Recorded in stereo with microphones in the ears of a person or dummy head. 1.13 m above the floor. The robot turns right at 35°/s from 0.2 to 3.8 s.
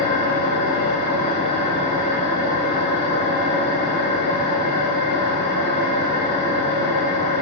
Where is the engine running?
105° left, 1.1 m; by 7.4 s 125° right, 1.1 m.